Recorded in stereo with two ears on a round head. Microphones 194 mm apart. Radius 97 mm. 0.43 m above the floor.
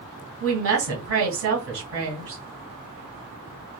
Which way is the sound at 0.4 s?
65° right (ahead or behind).